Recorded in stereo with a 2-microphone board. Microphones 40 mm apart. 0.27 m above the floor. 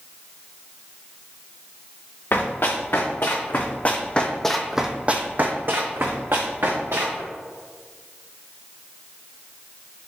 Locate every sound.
2.3 s running footsteps: 65° left (ahead or behind), 1.5 m; by 7.2 s 75° right (ahead or behind), 1.6 m